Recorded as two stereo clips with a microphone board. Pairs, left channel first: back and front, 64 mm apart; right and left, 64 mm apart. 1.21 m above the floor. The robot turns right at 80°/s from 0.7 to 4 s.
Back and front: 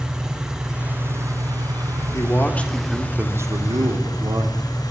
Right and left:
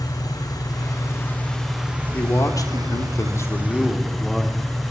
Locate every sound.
0.0 s an engine running: 80° right, 4.5 m; by 4.9 s 175° right, 4.5 m
2.1 s a man speaking: 145° right, 3 m; by 4.6 s 5° left, 3 m